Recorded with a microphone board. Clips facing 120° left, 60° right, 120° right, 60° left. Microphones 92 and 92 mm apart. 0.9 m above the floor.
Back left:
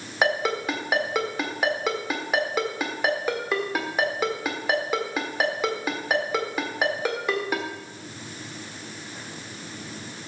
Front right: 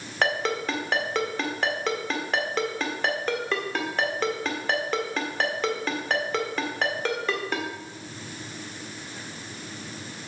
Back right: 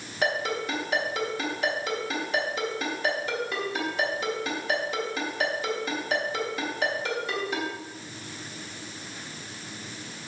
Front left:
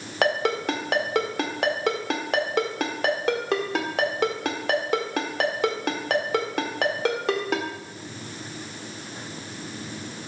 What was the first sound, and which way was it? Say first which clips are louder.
A ringtone: back left 2 dB, front left 5 dB; 40° left.